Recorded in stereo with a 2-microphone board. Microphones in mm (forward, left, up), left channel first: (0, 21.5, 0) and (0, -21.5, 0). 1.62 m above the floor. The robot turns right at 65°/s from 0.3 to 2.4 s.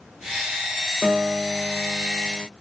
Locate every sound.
1.0 s a piano: 15° right, 0.5 m; by 2.5 s 75° left, 0.5 m